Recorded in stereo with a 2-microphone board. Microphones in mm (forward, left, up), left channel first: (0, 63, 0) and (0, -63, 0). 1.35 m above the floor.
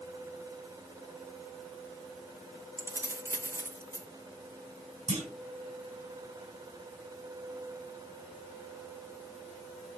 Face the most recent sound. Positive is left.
turn(degrees=-60)  # may be behind; listen again after turning